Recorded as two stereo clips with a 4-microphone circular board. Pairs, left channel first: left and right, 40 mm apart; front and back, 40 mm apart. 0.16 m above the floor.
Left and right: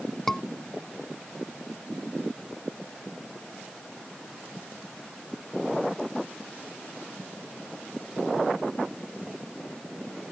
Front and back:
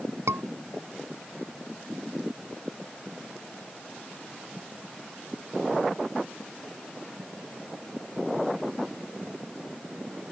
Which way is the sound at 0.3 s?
170° left.